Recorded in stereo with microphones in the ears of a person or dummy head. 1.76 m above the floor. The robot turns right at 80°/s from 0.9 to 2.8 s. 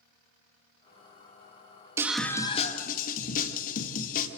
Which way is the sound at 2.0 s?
15° right.